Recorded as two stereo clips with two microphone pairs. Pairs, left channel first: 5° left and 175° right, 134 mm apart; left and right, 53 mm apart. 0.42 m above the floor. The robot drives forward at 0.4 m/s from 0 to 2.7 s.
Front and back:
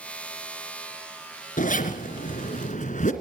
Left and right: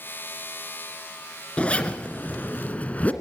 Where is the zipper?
20° left, 2.5 m; by 3.1 s 25° left, 2 m.